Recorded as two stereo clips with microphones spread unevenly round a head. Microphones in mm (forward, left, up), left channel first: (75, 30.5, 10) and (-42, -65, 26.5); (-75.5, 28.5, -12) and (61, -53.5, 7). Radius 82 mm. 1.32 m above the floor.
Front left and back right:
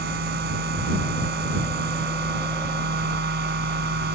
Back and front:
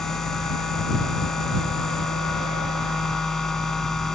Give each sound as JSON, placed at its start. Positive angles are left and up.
{"t": 0.0, "sound": "a machine running", "azimuth_deg": -125}